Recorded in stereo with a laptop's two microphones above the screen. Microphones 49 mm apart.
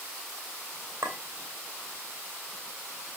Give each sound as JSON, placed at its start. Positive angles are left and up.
{"t": 1.0, "sound": "a clink", "side_deg": -60, "distance_m": 3.0}